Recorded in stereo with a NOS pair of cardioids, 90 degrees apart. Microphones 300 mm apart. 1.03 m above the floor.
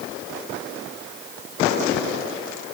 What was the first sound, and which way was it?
Only background noise.